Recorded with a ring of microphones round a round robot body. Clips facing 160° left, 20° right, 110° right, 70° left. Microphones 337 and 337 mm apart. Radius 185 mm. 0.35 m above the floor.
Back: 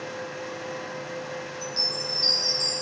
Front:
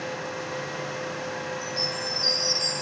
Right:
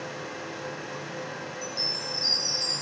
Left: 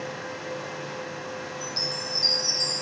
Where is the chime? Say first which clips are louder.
Front 2 dB, left 2 dB; 90° left, 7 m.